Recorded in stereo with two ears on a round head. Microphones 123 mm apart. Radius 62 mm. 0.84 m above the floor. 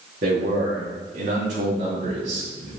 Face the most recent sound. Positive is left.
turn(degrees=-45)  # may be behind; listen again after turning